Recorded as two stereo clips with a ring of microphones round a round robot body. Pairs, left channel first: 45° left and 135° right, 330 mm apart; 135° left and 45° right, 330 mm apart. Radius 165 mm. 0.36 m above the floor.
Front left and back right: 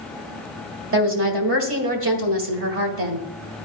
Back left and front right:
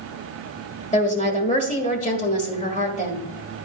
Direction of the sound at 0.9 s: 165° right.